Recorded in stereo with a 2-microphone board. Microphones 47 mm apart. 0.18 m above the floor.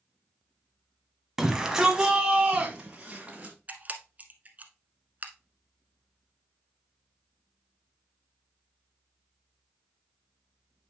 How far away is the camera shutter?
About 0.9 m.